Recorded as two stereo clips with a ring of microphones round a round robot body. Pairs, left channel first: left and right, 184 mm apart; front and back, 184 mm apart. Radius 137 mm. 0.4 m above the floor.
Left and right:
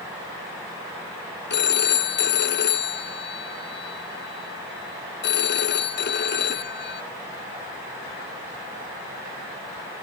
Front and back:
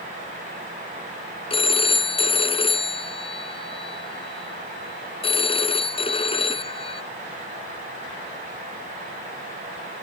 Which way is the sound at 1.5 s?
60° left.